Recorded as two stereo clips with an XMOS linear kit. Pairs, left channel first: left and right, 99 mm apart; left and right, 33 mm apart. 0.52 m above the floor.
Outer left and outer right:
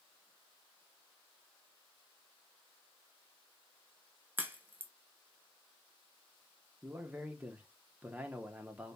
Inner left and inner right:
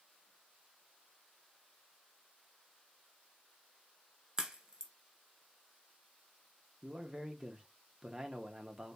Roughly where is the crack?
Centre.